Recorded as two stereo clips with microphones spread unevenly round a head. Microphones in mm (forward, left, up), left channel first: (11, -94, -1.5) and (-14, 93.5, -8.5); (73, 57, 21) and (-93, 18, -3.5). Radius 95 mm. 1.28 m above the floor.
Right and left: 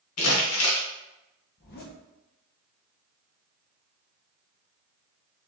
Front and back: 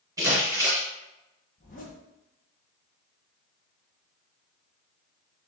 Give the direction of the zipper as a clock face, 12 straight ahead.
1 o'clock.